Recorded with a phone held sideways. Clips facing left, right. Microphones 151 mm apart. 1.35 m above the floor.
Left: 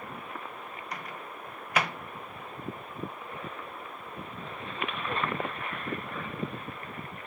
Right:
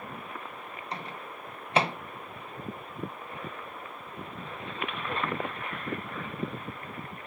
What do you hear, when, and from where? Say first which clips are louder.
0.9 s a microwave: right 3 dB; 30° right (ahead or behind), 0.8 m